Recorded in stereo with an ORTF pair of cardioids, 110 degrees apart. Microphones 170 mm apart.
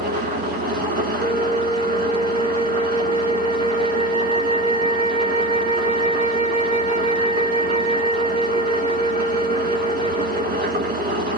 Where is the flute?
50° right, 0.7 m.